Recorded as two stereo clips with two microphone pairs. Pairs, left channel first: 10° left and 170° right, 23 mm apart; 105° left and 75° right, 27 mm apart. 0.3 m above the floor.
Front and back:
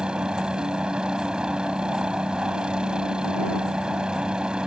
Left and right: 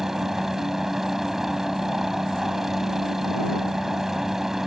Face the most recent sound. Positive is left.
turn(degrees=-145)